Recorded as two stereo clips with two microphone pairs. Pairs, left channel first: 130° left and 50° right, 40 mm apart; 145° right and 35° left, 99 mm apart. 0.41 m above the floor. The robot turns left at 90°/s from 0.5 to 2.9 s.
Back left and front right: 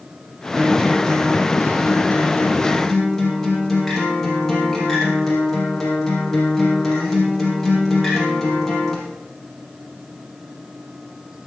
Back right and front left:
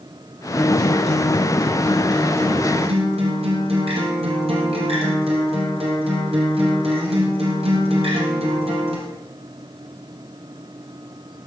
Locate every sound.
0.6 s a guitar: 100° right, 4 m; by 9.0 s 50° left, 4 m